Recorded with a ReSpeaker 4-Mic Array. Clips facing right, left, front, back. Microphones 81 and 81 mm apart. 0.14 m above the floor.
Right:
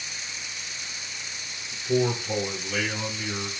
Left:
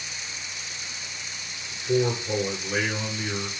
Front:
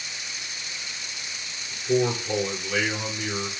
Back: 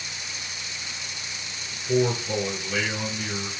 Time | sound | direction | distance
1.7 | a man speaking | 60° left | 2 m